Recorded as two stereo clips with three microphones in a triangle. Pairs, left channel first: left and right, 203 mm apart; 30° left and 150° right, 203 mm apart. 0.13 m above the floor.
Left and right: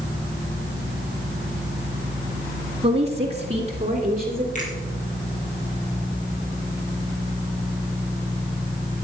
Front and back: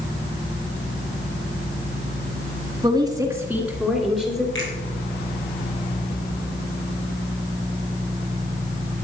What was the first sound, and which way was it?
A woman speaking, 105° right.